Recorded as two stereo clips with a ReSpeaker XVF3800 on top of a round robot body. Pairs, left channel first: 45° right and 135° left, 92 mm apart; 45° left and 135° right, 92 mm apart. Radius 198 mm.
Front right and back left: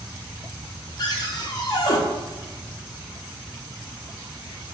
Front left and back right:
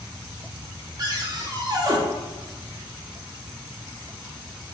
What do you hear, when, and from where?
1.0 s a cupboard door: 90° right, 0.8 m